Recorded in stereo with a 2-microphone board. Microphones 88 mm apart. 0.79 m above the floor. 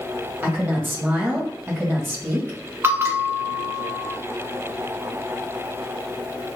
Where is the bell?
25° right (ahead or behind), 0.5 m.